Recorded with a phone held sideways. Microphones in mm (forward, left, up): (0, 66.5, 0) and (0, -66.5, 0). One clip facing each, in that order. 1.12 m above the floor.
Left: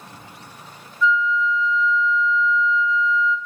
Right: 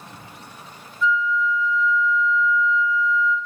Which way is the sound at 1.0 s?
35° right (ahead or behind).